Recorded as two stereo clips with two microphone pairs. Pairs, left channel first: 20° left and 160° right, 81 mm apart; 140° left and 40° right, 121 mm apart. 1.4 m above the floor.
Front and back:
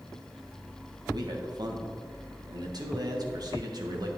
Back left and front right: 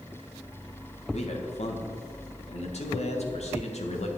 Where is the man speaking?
170° left, 1.4 m.